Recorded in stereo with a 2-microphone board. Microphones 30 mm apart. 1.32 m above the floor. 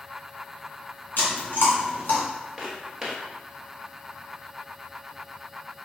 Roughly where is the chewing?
Left.